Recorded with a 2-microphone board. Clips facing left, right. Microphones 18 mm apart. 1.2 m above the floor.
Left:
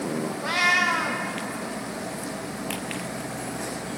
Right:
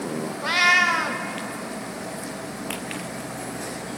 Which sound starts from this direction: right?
A cat meowing, at 0.4 s.